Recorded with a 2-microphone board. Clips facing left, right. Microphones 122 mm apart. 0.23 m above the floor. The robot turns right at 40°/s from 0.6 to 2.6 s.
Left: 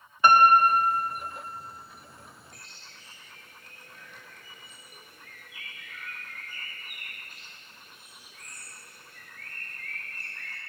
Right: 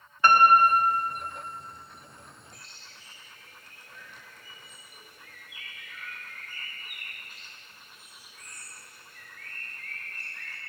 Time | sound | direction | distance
0.2 | a piano | 15° left (ahead or behind) | 0.5 m
2.5 | a bird | 55° left (ahead or behind) | 1.1 m